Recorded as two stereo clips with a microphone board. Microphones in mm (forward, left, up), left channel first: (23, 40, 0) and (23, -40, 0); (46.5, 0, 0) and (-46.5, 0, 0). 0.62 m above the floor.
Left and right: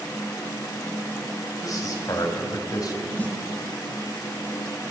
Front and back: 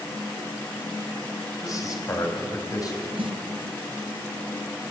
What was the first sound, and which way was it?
A man speaking, 50° left.